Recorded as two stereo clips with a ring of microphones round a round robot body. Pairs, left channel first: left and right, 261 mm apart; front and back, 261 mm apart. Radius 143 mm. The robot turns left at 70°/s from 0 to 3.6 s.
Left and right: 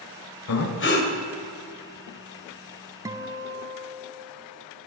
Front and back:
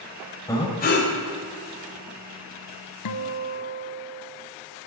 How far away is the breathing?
About 2 m.